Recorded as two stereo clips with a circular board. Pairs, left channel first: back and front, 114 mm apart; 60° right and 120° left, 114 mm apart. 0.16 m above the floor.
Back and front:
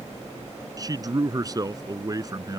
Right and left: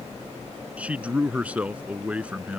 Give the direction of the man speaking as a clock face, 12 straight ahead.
10 o'clock.